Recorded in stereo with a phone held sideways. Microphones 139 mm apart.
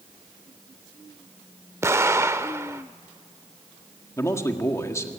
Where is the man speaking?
20° left (ahead or behind), 1.7 m.